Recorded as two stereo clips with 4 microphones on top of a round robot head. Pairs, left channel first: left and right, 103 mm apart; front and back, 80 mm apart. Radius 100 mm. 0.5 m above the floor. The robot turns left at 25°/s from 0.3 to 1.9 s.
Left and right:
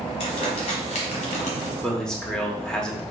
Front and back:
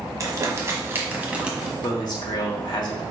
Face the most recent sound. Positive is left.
turn(degrees=10)